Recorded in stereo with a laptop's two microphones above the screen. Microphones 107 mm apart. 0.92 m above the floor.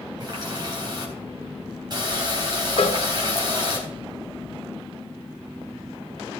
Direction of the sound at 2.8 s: 60° left (ahead or behind).